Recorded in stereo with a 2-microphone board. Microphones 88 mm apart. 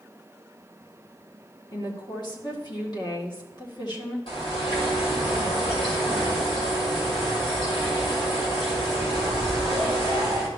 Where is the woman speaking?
50° left (ahead or behind), 1.8 m.